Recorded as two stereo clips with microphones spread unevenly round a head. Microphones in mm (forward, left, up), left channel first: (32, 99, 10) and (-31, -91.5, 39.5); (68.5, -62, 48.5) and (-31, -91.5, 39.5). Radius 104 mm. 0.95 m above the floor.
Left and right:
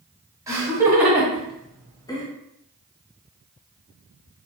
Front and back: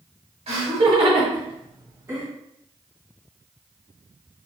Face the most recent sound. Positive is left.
turn(degrees=130)